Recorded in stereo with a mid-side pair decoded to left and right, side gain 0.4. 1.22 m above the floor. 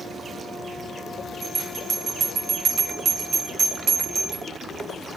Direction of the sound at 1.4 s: 60° right.